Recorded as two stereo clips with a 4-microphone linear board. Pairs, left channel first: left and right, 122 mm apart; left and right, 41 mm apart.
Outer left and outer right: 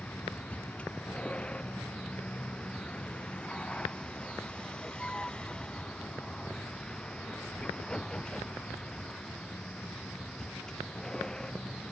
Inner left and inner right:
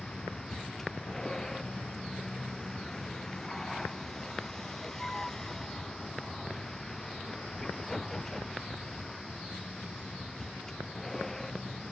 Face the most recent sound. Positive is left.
turn(degrees=5)  # may be behind; listen again after turning